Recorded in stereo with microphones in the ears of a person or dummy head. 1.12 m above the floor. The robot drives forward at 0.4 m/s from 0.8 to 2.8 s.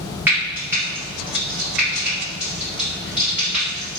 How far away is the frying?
About 1.7 m.